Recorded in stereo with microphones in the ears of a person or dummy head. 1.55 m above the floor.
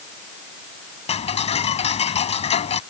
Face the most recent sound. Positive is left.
turn(degrees=30)  # may be behind; listen again after turning